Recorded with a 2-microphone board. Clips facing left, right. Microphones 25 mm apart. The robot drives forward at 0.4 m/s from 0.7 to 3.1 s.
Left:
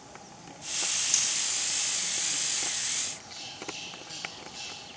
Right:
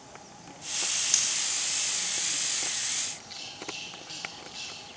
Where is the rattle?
30° right (ahead or behind), 7 m.